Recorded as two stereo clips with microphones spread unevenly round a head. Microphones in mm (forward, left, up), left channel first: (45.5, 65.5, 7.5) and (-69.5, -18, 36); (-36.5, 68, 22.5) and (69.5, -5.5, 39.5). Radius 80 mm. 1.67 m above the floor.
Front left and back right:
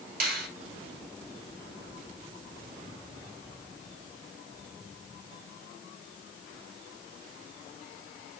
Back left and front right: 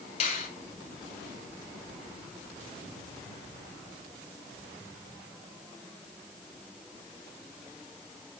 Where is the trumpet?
I don't hear a trumpet.